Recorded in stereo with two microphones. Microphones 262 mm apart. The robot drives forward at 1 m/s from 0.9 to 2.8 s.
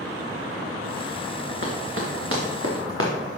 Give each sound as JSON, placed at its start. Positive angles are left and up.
{"t": 1.6, "sound": "running footsteps", "side_deg": -55, "distance_m": 3.5}